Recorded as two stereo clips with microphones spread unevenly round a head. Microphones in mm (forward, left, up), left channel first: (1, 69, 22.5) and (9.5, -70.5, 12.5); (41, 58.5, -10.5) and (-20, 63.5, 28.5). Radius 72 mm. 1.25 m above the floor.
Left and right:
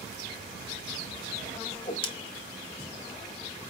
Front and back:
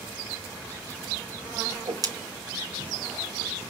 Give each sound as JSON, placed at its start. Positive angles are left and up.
{"t": 1.7, "sound": "a whoosh", "azimuth_deg": 150, "distance_m": 0.7}